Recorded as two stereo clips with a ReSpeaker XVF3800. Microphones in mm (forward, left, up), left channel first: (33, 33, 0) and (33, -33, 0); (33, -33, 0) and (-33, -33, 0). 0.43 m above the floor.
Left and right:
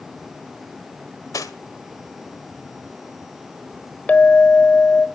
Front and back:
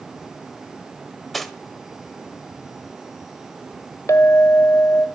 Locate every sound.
1.3 s cutlery clinking: 85° left, 1.2 m
4.1 s a clink: 25° left, 1.2 m